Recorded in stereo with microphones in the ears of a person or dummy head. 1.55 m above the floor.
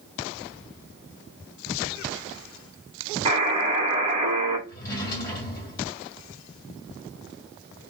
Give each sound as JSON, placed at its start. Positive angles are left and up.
{"t": 3.2, "sound": "a buzzer", "side_deg": -30, "distance_m": 1.2}
{"t": 4.7, "sound": "a drawer", "side_deg": 20, "distance_m": 1.7}